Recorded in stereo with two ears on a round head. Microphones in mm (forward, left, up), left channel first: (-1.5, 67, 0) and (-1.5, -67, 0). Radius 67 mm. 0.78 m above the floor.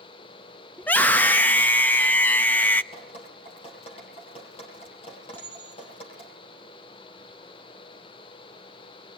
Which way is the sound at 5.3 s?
15° left (ahead or behind).